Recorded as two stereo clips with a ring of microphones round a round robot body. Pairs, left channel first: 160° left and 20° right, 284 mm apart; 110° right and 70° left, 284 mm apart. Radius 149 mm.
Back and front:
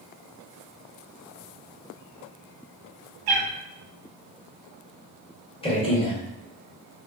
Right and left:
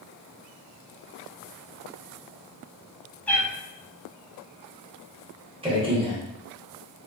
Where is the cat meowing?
25° right, 1.0 m.